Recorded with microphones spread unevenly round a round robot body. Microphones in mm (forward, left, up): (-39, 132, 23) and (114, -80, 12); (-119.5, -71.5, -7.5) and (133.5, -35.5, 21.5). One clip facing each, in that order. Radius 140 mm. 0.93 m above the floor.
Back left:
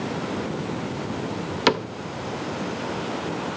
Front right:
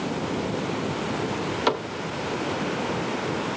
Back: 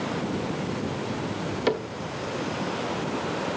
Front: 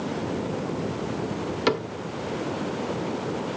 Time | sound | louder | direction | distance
1.7 | a cupboard door | back left 5 dB, front 1 dB | 80° left | 0.7 m